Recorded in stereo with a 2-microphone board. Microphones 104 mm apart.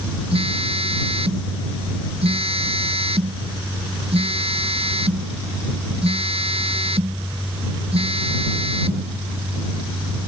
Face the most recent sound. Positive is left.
turn(degrees=-75)  # may be behind; listen again after turning